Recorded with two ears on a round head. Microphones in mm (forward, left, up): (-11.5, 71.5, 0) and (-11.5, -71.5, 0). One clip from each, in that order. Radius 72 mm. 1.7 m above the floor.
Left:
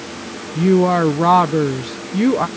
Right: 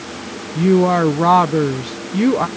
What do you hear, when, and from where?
0.6 s a woman speaking: centre (ahead or behind)